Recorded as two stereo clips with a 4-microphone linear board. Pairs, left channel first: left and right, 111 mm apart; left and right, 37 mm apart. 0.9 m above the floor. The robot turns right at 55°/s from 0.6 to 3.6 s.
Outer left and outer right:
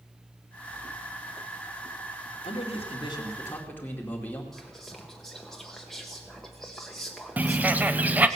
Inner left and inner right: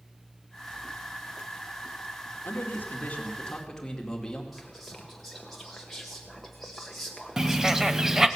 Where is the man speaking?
100° left, 2.5 m; by 4.4 s 165° left, 2.5 m.